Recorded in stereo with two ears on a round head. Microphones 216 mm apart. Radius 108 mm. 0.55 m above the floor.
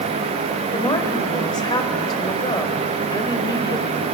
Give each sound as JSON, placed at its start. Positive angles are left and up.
{"t": 0.7, "sound": "a woman speaking", "side_deg": 20, "distance_m": 1.9}